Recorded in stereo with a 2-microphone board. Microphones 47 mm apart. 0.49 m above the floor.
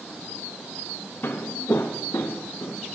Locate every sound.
1.2 s footsteps: 55° left (ahead or behind), 1.1 m; by 2.8 s 75° left (ahead or behind), 2 m